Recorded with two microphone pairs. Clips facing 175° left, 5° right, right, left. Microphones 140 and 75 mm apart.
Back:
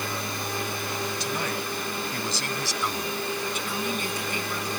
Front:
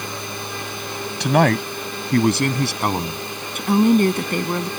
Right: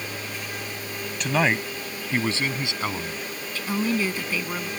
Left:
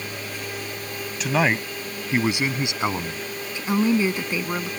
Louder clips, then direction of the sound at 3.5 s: Front 15 dB, left 5 dB; 20° left.